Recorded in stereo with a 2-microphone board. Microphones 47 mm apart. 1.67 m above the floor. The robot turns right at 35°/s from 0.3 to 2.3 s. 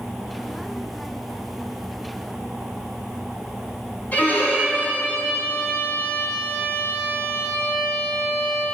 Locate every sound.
4.1 s a violin: 40° left (ahead or behind), 4 m